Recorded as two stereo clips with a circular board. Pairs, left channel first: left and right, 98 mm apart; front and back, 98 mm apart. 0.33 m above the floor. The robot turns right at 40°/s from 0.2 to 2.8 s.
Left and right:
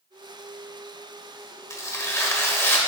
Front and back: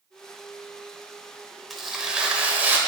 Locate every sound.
1.7 s tearing paper: 90° left, 1.0 m; by 2.8 s 130° left, 1.0 m